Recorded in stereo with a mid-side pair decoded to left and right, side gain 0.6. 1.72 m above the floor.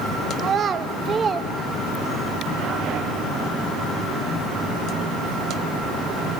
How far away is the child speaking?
About 2.5 m.